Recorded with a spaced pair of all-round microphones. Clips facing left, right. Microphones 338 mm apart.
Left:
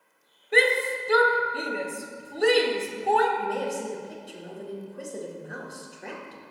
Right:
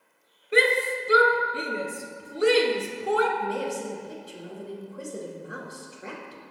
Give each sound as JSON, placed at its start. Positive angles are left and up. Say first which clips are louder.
{"t": 0.5, "sound": "a shout", "louder": "even", "side_deg": -5, "distance_m": 0.9}
{"t": 3.4, "sound": "a woman speaking", "louder": "even", "side_deg": -5, "distance_m": 1.4}